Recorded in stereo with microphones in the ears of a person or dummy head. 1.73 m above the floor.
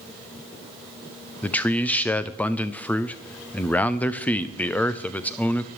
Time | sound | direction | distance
1.4 | a man speaking | 5° left (ahead or behind) | 0.5 m